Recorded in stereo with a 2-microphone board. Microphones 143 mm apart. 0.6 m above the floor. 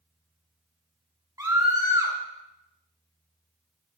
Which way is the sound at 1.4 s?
25° right (ahead or behind).